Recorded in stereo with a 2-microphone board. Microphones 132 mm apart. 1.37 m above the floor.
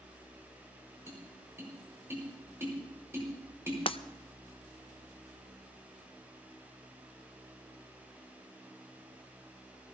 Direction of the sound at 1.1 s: 20° right (ahead or behind).